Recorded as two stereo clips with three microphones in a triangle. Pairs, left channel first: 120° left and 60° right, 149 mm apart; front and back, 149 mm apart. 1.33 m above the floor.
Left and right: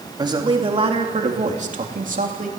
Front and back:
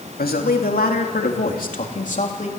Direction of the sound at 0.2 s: Straight ahead.